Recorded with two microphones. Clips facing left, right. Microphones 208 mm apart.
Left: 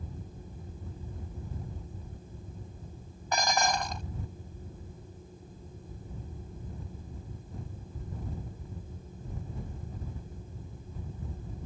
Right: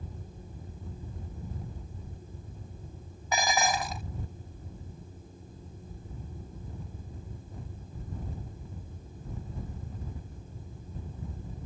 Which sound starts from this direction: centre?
Dishes clattering, at 3.3 s.